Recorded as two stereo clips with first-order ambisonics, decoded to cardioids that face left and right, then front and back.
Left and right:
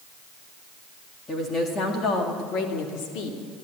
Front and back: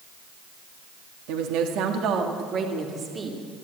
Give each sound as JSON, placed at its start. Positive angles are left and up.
{"t": 1.3, "sound": "a woman speaking", "azimuth_deg": 165, "distance_m": 2.0}